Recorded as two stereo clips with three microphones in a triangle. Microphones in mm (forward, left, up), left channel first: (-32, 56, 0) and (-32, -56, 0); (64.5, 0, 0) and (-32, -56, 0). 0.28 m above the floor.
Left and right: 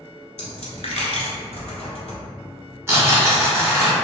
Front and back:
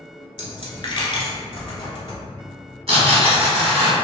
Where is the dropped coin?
70° left, 0.9 m.